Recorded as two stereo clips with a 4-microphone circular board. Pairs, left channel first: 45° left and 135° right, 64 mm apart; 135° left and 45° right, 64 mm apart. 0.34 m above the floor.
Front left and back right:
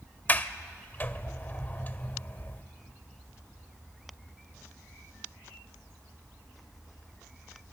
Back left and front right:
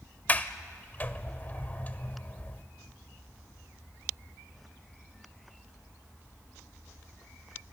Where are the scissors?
I don't hear scissors.